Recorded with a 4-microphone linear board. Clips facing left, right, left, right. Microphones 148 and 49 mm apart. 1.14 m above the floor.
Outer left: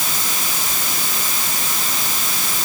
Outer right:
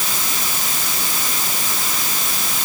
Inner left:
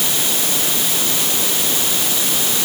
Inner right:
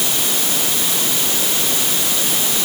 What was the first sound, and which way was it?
Only background noise.